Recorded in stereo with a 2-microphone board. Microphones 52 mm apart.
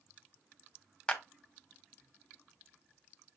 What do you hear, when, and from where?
1.1 s a clap: 20° left (ahead or behind), 1.4 m